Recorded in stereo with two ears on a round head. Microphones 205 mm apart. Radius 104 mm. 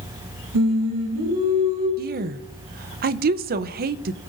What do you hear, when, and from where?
0.5 s singing: 80° right, 6 m
2.0 s a woman speaking: 40° right (ahead or behind), 0.6 m